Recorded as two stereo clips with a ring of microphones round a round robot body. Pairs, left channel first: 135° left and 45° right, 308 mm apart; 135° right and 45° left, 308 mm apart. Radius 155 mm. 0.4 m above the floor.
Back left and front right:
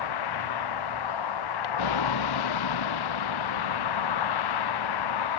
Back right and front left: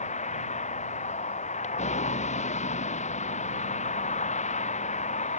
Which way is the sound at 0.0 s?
155° left.